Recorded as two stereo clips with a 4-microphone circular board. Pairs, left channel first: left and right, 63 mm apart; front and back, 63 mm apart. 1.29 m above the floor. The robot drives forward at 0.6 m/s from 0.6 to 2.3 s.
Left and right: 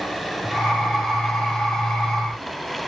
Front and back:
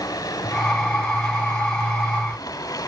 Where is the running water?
Straight ahead, 5 m; by 2.9 s 5° left, 4 m.